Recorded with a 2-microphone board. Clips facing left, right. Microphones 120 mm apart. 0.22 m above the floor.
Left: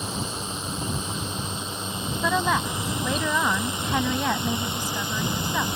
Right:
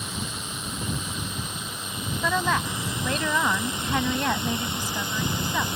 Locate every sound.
0.0 s a drone: 30° left (ahead or behind); by 5.8 s 20° left (ahead or behind)
2.2 s a woman speaking: 10° left (ahead or behind)